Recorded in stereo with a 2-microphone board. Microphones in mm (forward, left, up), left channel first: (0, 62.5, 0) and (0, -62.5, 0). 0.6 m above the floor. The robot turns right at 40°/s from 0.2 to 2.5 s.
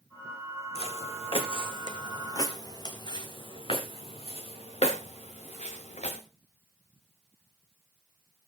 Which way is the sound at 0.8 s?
55° left (ahead or behind).